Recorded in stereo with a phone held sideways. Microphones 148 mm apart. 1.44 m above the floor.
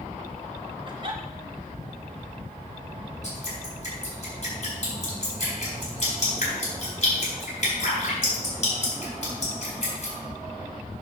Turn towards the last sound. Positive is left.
turn(degrees=50)  # may be behind; listen again after turning